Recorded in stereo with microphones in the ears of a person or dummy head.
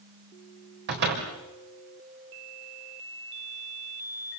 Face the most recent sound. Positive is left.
turn(degrees=-60)  # may be behind; listen again after turning